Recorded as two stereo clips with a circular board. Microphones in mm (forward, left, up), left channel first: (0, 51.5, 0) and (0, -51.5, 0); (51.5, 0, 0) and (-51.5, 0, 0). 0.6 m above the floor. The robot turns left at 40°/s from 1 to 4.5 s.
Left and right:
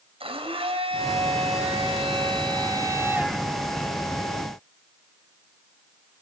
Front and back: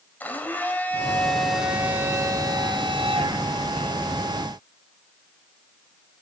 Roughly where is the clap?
I don't hear a clap.